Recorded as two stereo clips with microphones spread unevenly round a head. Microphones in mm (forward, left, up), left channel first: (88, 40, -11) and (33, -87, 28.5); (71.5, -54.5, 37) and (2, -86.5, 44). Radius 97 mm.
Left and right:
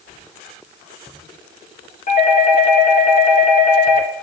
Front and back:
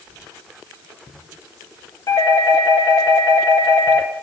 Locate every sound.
2.1 s a doorbell: 70° left, 1.8 m